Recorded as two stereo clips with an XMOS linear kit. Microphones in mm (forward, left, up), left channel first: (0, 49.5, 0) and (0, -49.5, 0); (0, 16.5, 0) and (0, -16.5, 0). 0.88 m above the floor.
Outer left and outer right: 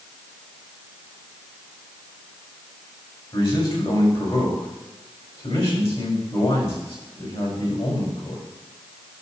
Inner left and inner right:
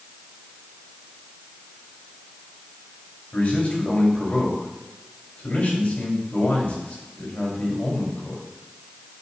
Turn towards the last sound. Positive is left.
turn(degrees=65)  # may be behind; listen again after turning